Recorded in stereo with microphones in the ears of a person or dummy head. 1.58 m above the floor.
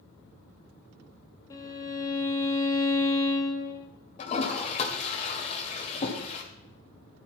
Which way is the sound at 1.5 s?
30° left (ahead or behind).